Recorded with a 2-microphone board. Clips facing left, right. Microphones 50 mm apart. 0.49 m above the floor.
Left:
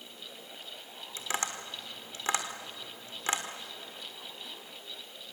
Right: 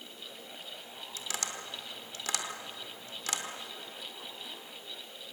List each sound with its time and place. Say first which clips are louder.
1.2 s tapping: left 5 dB; 35° left (ahead or behind), 1.7 m